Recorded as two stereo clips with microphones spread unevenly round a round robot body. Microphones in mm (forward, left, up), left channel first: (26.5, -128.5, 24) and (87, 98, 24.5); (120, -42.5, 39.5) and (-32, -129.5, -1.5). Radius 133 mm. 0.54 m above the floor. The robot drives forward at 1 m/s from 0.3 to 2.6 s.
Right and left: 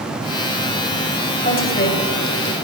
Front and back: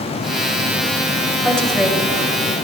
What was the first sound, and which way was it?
A woman speaking, 60° right.